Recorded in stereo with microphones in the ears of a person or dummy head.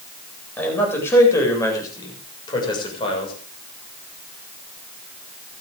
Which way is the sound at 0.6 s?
10° left (ahead or behind).